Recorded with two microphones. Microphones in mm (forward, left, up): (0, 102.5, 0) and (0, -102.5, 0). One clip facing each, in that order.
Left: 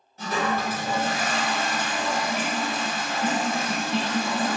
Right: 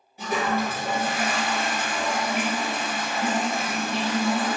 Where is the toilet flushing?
10° right (ahead or behind), 1.6 m.